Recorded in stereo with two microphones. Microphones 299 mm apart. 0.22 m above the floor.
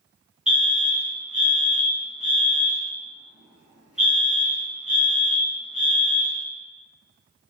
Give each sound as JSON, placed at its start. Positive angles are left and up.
{"t": 0.5, "sound": "a fire alarm", "side_deg": -5, "distance_m": 3.0}